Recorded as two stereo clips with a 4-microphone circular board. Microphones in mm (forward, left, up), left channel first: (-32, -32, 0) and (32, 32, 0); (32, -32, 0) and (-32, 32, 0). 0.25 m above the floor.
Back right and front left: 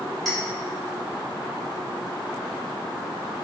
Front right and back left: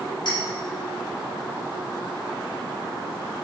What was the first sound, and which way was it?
A clink, 50° right.